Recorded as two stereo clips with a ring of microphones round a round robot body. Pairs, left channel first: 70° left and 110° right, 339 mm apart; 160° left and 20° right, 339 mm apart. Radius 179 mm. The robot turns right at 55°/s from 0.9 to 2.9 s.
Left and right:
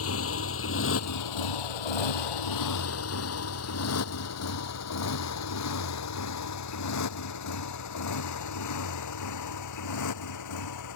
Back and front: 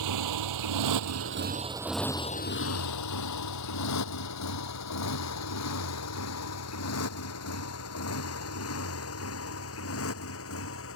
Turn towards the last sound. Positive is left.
turn(degrees=105)